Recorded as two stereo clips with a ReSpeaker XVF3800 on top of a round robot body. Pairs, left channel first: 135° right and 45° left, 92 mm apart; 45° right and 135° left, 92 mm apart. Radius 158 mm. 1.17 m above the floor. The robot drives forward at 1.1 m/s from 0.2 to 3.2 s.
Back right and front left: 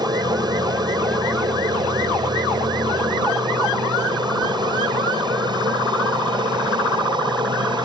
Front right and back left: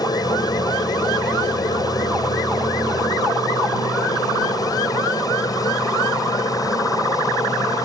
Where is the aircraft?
Straight ahead; by 7.8 s 5° left.